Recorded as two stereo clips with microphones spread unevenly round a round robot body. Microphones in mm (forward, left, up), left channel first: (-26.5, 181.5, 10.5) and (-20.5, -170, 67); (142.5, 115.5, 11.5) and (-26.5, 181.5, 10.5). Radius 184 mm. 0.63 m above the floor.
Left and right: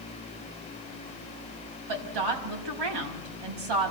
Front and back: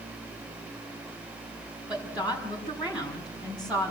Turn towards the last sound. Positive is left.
turn(degrees=-115)